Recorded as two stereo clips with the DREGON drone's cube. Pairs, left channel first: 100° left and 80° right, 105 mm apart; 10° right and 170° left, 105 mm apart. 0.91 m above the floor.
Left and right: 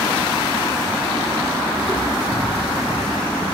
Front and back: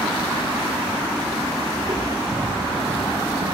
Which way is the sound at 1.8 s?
175° right.